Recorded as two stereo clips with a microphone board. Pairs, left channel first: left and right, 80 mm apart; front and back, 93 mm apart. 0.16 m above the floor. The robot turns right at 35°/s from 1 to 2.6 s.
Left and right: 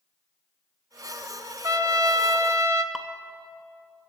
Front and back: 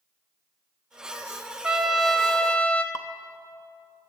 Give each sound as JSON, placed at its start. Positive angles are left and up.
{"t": 1.6, "sound": "a trumpet", "azimuth_deg": -100, "distance_m": 0.7}
{"t": 2.9, "sound": "dripping", "azimuth_deg": -10, "distance_m": 0.6}